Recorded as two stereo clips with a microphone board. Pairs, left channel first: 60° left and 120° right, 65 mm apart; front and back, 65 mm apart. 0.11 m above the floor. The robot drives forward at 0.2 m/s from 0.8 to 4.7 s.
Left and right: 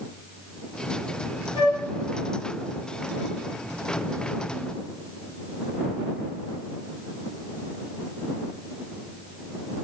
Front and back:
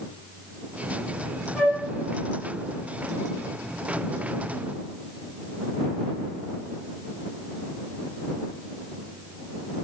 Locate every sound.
1.6 s a flute: 85° right, 1.4 m; by 1.8 s 90° right, 1.4 m